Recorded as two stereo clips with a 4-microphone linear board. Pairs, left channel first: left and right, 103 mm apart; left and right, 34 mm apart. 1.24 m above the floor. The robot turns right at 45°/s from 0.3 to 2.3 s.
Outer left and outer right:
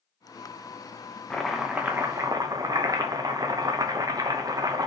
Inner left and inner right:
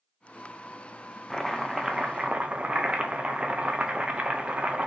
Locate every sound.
1.3 s chopping: 170° left, 0.6 m; by 4.9 s 145° right, 0.6 m